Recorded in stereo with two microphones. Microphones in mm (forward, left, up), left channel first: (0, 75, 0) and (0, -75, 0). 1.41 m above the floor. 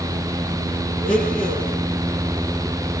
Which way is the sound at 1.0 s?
65° left (ahead or behind).